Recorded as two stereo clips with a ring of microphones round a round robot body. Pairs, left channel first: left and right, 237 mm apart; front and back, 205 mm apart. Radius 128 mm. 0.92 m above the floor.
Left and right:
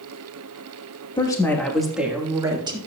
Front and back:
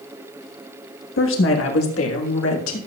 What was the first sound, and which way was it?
A woman speaking, 20° left.